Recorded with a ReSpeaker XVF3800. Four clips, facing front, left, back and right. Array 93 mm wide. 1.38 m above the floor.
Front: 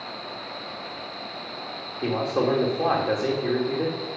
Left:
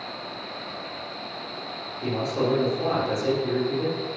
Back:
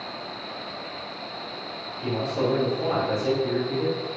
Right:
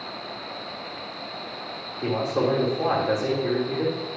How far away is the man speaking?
About 3 m.